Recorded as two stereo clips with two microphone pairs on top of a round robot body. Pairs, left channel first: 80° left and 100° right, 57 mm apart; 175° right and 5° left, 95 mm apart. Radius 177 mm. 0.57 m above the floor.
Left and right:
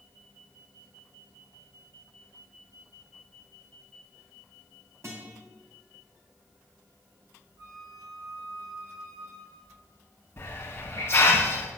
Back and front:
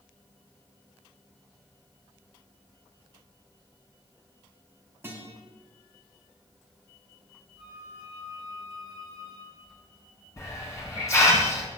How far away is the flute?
About 7 m.